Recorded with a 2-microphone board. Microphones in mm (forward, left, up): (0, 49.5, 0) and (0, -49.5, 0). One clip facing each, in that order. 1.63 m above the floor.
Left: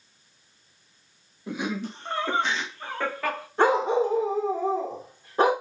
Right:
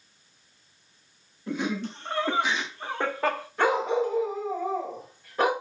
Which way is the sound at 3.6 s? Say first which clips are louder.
Left 3 dB; 30° left (ahead or behind).